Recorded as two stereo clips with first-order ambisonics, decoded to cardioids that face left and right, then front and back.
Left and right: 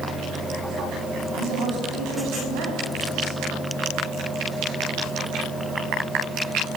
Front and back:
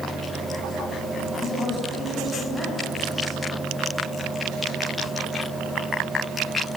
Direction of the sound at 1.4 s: 95° right.